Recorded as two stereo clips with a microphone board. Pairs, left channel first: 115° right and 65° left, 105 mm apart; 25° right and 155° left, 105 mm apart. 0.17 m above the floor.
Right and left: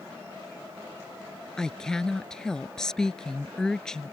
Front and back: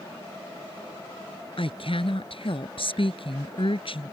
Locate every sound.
1.6 s a woman speaking: 30° right